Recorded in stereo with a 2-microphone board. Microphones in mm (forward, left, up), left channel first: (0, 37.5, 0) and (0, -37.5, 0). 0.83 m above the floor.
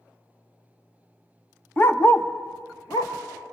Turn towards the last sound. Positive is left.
turn(degrees=50)  # may be behind; listen again after turning